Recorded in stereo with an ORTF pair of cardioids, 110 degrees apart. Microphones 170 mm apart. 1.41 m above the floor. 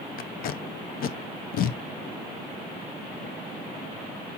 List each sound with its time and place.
0.2 s tape being pulled: 55° left, 0.5 m